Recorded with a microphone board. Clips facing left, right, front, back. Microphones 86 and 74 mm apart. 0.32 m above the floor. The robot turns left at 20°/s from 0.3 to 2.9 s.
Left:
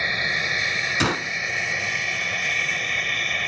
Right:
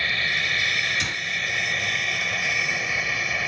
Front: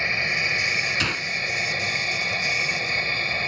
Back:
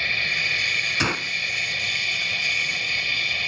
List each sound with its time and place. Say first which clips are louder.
0.0 s an aircraft: left 1 dB, front 1 dB; 40° left; by 3.5 s 10° right
1.0 s a gunshot: left 7 dB, back 2 dB; 110° left; by 1.3 s 105° left